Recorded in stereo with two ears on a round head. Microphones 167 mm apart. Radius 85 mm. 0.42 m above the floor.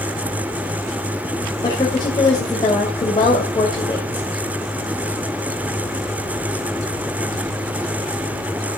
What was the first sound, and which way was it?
A woman speaking, 25° left (ahead or behind).